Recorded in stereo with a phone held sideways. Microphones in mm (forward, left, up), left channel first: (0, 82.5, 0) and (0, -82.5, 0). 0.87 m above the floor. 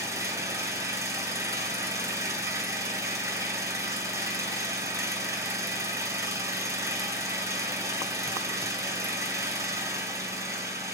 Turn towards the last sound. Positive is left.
turn(degrees=-20)  # may be behind; listen again after turning